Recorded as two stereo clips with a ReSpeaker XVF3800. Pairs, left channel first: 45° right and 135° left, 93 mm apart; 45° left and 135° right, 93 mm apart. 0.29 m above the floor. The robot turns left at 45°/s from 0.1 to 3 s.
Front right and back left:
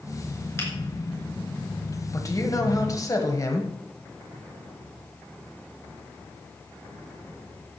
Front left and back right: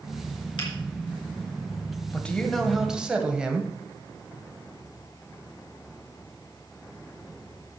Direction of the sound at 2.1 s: 20° right.